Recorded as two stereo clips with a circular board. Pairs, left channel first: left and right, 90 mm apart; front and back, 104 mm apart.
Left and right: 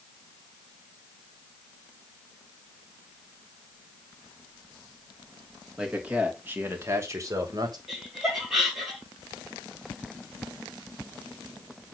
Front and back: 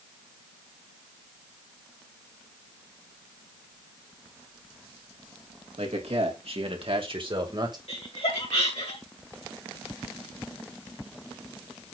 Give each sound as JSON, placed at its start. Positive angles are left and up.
{"t": 5.8, "sound": "a man speaking", "azimuth_deg": -170, "distance_m": 3.0}
{"t": 7.9, "sound": "laughter", "azimuth_deg": -5, "distance_m": 2.5}